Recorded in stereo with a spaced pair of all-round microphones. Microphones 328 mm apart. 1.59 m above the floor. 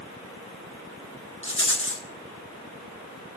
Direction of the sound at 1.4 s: 40° left (ahead or behind).